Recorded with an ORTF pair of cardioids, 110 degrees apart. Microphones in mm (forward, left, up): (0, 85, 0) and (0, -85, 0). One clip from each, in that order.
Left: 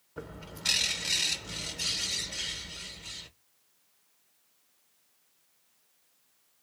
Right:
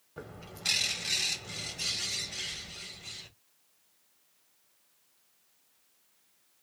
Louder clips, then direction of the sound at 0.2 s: Left 2 dB; 10° left.